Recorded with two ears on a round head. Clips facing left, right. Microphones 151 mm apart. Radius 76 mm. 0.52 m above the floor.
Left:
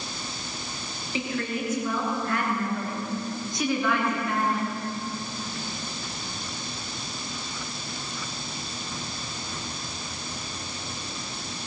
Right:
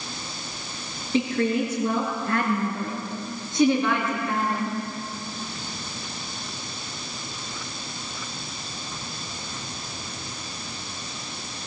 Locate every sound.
1.1 s a woman speaking: 30° right (ahead or behind), 9 m; by 4.8 s 20° right (ahead or behind), 6.5 m